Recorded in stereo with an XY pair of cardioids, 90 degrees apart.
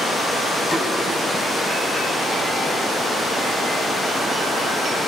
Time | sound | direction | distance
0.7 | a snare drum | 15° left | 7 m